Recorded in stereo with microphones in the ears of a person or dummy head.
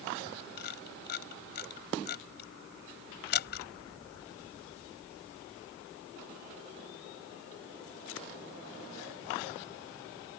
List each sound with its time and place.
0.6 s a camera shutter: 65° left (ahead or behind)